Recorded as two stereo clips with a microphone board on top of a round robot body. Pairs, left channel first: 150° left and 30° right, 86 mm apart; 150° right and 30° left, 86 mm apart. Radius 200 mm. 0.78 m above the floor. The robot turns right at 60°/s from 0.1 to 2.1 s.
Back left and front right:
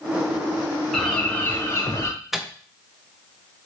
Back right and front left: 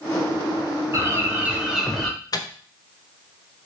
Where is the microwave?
115° right, 0.5 m.